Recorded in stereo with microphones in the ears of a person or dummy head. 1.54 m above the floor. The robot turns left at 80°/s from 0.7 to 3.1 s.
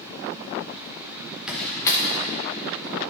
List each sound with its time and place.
1.5 s a door slam: 5° right (ahead or behind), 0.9 m; by 3.0 s 40° left (ahead or behind), 0.9 m